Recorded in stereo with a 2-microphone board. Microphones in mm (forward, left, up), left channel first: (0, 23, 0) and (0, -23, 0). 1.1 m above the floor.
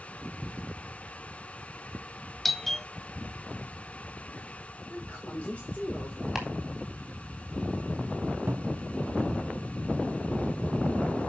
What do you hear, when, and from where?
2.5 s a doorbell: 5° left (ahead or behind), 0.5 m
4.9 s a woman speaking: 25° left (ahead or behind), 4.5 m
6.3 s chopping: 5° right (ahead or behind), 3.5 m
8.5 s a cupboard door: 65° right (ahead or behind), 0.8 m